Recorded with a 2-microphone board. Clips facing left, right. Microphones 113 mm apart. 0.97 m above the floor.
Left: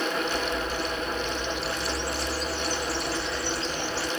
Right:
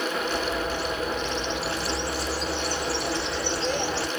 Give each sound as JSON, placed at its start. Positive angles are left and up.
{"t": 0.1, "sound": "a bird", "side_deg": -80, "distance_m": 3.0}